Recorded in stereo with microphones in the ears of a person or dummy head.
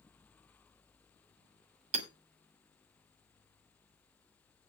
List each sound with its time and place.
1.9 s hammering: 35° right (ahead or behind), 2.5 m